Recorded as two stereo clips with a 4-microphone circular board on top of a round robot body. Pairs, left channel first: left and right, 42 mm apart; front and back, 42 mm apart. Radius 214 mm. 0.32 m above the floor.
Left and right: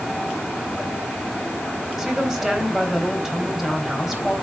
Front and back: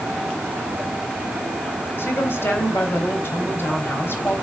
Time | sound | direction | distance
2.0 | a woman speaking | 10° right | 3.5 m